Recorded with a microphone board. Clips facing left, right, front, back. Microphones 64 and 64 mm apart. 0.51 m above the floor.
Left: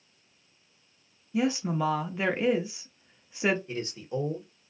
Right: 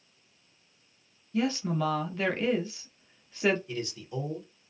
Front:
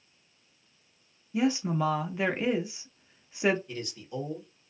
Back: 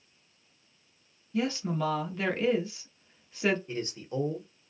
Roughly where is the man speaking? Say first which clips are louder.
Left 2 dB, back 3 dB; behind left.